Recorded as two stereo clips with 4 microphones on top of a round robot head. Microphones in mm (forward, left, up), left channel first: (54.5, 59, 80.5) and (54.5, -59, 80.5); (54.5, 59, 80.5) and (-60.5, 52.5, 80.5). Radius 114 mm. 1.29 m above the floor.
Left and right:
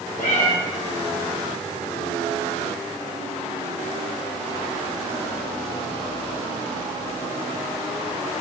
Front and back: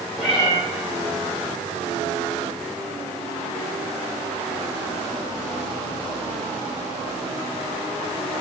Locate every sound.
0.2 s a cat meowing: 90° left, 2 m